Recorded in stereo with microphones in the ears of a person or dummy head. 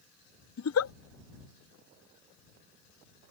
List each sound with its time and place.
0.6 s a giggle: 80° left